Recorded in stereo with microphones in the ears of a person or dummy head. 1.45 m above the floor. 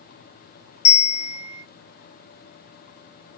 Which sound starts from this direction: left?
A bell, at 0.8 s.